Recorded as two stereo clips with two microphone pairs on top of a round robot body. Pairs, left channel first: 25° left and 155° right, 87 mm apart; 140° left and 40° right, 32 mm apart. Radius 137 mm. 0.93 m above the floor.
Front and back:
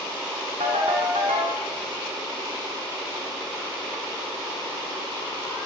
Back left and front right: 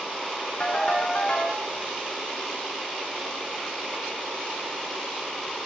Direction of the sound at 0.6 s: 160° right.